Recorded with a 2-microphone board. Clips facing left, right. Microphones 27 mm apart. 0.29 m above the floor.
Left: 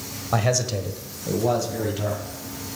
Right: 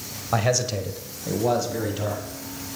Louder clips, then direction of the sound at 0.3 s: Even; centre (ahead or behind).